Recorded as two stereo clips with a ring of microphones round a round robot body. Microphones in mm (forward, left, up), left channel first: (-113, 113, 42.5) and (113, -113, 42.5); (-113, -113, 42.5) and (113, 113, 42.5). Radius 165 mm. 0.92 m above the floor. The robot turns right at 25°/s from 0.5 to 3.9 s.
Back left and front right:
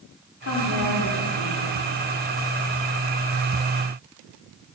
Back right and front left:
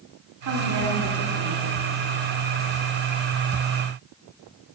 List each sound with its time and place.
0.4 s a woman speaking: 80° left, 2.5 m; by 1.6 s 110° left, 2.5 m